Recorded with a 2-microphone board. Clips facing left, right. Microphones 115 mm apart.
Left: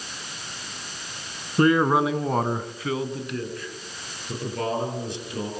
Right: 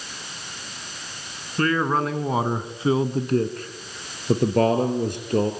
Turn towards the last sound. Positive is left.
turn(degrees=-55)  # may be behind; listen again after turning